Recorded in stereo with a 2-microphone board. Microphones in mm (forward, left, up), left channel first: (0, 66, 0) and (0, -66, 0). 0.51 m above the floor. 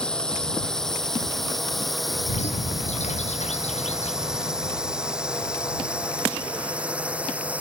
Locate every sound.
0.0 s a drone: 5° left (ahead or behind); by 7.6 s 10° right (ahead or behind)
2.3 s a bird: 60° left (ahead or behind)